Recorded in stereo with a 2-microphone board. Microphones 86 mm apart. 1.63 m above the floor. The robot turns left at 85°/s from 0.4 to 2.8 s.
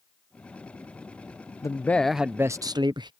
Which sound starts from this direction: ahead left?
A man speaking, at 1.6 s.